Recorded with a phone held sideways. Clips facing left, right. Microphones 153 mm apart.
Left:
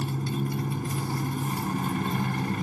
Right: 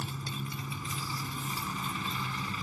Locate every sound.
0.0 s a motorcycle: 55° left (ahead or behind)